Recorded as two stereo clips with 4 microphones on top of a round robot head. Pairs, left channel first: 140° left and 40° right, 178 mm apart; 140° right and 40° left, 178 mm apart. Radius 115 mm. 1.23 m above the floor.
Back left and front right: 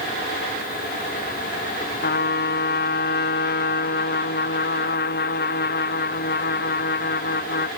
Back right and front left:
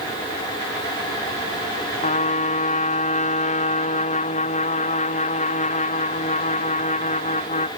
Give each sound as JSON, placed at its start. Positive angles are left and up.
{"t": 2.0, "sound": "a trumpet", "azimuth_deg": 170}